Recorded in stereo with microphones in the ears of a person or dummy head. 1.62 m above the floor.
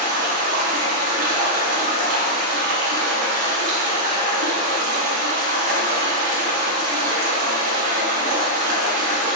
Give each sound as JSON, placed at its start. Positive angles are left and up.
{"t": 0.0, "sound": "running water", "side_deg": -60, "distance_m": 0.8}